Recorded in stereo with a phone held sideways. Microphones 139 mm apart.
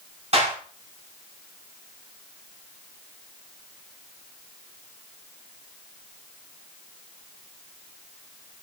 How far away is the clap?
About 6 m.